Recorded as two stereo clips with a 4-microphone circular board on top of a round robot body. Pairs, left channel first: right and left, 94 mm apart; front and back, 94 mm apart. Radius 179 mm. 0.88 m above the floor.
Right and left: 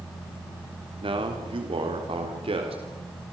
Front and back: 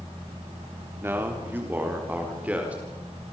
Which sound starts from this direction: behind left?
A man speaking, at 1.0 s.